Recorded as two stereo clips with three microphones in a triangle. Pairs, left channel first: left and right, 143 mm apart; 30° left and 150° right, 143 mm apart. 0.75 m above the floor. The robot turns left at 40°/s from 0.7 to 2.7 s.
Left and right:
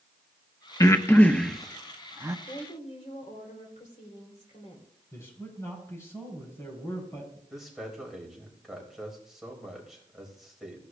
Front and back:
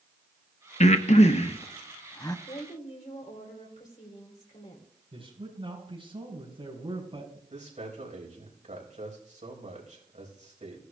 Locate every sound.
0.8 s breathing: 30° left, 0.7 m; by 2.4 s 30° right, 0.7 m
2.5 s a woman speaking: 65° left, 3 m; by 4.9 s 55° left, 3 m
5.1 s a man speaking: 160° left, 5.5 m
7.5 s a man speaking: 175° right, 4 m